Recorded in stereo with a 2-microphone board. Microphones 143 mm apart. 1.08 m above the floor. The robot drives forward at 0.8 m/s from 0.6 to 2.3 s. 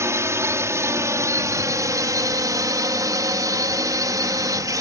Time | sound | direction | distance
0.0 | a drone | 20° right (ahead or behind) | ?